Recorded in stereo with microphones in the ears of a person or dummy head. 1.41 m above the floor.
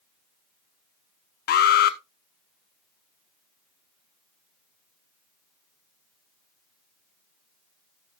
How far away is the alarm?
About 0.7 m.